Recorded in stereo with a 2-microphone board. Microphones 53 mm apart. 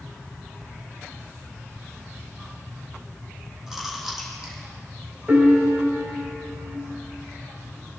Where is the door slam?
No door slam in this recording.